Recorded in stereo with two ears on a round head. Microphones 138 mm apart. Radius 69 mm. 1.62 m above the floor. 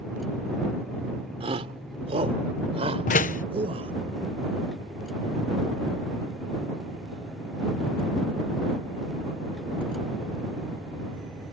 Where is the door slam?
55° left (ahead or behind).